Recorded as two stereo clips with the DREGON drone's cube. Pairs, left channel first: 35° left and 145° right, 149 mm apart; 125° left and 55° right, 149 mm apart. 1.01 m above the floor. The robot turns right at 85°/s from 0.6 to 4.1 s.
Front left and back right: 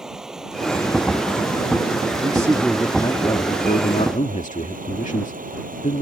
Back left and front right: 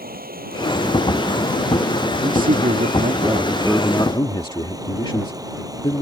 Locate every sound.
0.0 s running water: 60° right; by 6.0 s 120° right
2.2 s a man speaking: 95° right; by 6.0 s 65° left